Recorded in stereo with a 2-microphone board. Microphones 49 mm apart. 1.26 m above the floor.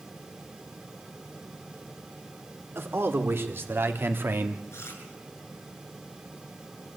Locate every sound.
2.8 s a man speaking: 50° right (ahead or behind), 3.5 m
4.7 s chewing: 60° left (ahead or behind), 8 m